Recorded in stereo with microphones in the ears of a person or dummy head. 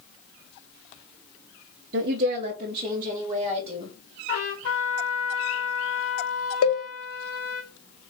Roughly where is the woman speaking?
Right.